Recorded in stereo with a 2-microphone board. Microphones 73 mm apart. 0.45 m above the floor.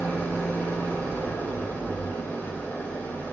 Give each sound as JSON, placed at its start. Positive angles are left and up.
{"t": 0.0, "sound": "an engine running", "side_deg": 25, "distance_m": 1.0}